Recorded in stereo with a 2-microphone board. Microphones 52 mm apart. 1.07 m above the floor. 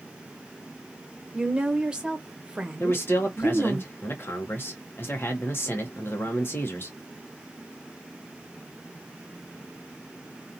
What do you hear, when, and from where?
1.3 s a woman speaking: 15° right (ahead or behind), 0.8 m
2.8 s a man speaking: 40° left (ahead or behind), 0.9 m